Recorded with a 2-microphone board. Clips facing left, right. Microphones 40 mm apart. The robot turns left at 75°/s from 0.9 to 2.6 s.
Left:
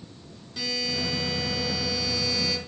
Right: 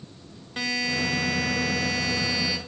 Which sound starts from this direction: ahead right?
A buzzer, at 0.6 s.